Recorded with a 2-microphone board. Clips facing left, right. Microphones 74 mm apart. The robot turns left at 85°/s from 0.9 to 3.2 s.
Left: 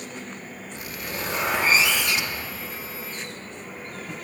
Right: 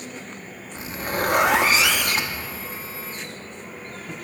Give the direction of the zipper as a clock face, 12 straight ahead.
1 o'clock.